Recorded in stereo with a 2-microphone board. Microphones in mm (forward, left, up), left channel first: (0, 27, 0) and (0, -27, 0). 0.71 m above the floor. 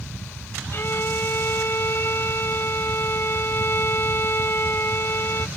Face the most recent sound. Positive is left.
turn(degrees=50)  # may be behind; listen again after turning